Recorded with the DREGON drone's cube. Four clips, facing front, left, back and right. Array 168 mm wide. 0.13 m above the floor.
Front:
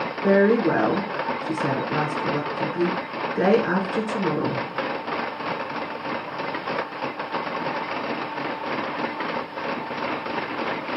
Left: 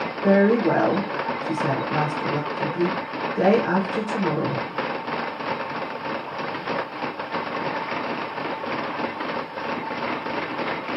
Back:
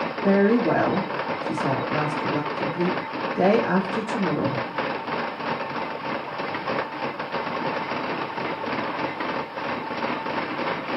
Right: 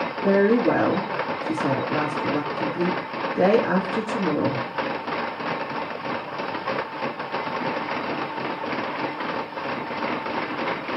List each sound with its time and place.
0.2 s a woman speaking: 15° left, 2 m